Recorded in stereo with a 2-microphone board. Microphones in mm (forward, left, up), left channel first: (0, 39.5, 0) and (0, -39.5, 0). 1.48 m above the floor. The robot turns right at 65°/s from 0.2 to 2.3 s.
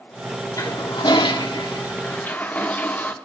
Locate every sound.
0.6 s a toilet flushing: 45° left, 1.3 m; by 3.1 s 160° left, 1.3 m